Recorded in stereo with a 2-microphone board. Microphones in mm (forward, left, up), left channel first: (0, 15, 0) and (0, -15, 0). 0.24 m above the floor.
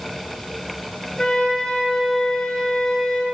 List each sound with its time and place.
1.2 s a flute: 30° left (ahead or behind), 2.5 m